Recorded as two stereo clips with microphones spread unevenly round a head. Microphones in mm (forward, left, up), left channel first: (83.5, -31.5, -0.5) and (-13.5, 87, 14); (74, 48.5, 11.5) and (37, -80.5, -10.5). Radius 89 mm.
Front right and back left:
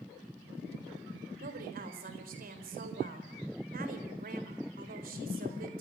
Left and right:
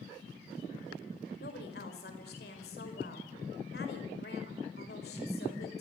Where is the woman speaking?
105° left, 4.5 m.